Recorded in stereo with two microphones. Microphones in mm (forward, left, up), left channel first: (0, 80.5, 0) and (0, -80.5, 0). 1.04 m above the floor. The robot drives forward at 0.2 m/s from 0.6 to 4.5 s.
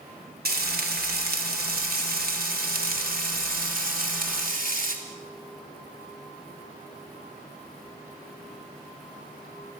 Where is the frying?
80° right, 2.5 m; by 5.0 s 65° right (ahead or behind), 3 m.